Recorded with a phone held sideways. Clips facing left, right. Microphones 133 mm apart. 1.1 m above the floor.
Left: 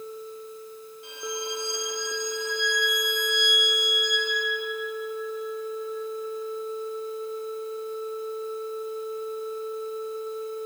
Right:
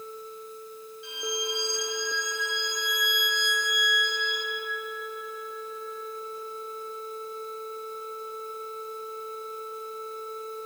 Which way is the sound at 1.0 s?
45° left (ahead or behind).